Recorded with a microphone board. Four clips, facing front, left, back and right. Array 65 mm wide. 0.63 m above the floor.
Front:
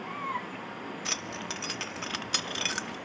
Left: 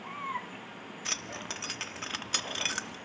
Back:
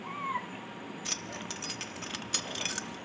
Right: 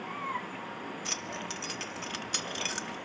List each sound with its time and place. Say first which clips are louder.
1.1 s keys jangling: right 2 dB, front 4 dB; 35° left, 0.6 m